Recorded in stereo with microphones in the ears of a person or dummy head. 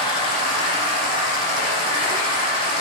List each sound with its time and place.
0.0 s running water: 25° left (ahead or behind), 2.0 m